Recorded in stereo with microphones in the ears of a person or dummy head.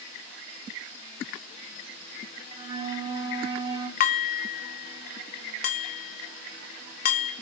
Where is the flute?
25° right (ahead or behind), 2 m.